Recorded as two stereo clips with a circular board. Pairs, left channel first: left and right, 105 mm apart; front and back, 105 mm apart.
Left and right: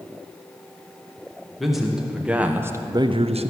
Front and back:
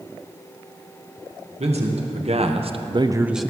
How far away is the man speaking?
About 1.9 m.